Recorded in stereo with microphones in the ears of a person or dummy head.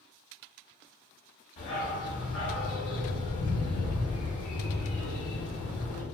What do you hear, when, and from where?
1.6 s a dog barking: 40° left (ahead or behind), 1.7 m